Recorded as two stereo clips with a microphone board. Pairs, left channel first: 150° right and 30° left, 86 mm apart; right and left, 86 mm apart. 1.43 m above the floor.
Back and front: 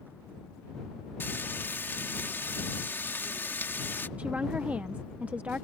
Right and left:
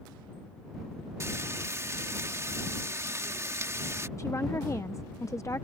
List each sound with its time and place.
1.2 s frying: 145° left
4.2 s a woman speaking: 40° right